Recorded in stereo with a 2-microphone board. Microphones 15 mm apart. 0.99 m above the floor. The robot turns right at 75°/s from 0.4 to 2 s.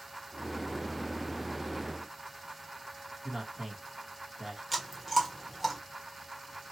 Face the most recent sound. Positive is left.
turn(degrees=0)  # may be behind; listen again after turning